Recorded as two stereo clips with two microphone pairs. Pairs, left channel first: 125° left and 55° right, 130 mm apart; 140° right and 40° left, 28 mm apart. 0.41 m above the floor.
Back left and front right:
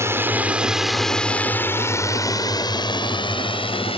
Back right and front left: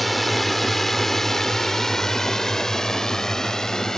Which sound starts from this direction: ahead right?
A drone, at 0.0 s.